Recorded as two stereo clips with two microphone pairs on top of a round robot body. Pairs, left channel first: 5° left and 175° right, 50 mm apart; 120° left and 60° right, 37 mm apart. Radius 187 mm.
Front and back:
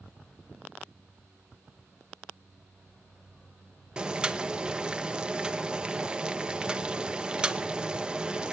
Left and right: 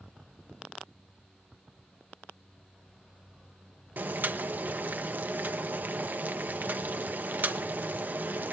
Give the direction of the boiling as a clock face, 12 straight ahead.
3 o'clock.